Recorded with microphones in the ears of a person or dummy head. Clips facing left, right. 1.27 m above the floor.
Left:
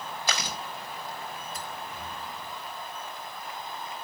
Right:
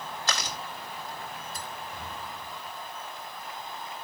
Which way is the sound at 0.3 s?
10° left (ahead or behind).